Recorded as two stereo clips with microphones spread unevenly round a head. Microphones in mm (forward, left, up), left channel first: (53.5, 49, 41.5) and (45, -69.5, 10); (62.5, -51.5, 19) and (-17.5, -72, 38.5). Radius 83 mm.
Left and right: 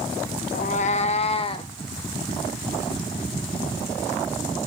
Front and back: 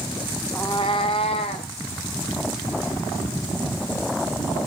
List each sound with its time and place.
0.6 s a cat meowing: 100° left, 0.7 m; by 1.7 s 45° left, 1.9 m